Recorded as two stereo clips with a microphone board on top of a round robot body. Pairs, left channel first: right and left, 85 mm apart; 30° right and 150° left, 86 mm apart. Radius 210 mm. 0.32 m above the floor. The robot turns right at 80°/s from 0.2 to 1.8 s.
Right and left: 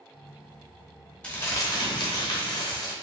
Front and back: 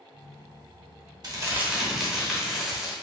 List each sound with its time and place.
1.2 s crumpling: 170° right, 0.9 m; by 2.9 s 125° right, 0.9 m